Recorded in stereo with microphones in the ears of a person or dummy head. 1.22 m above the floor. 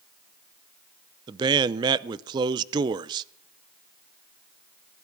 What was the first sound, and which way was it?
A man speaking, 20° right (ahead or behind).